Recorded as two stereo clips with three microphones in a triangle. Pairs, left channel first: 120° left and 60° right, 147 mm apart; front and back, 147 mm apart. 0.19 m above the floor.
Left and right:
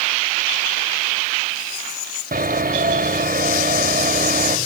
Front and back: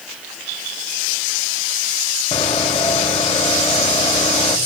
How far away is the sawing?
About 3.5 m.